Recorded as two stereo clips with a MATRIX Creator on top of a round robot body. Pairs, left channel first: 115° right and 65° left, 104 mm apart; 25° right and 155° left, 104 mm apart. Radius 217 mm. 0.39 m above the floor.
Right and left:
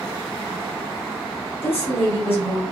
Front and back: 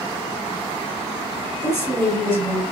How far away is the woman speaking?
About 2.5 m.